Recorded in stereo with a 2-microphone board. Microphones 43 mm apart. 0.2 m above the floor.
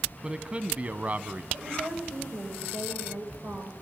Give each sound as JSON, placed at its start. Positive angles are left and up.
{"t": 0.2, "sound": "a man speaking", "side_deg": -20, "distance_m": 1.2}
{"t": 1.5, "sound": "a woman speaking", "side_deg": -55, "distance_m": 10.0}